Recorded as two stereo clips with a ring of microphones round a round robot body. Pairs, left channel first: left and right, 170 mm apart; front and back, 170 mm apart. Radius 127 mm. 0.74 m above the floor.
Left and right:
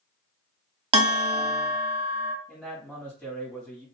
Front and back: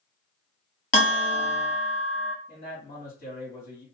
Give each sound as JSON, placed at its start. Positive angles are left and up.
{"t": 0.9, "sound": "a bell", "azimuth_deg": -45, "distance_m": 0.7}
{"t": 2.5, "sound": "a man speaking", "azimuth_deg": 5, "distance_m": 2.0}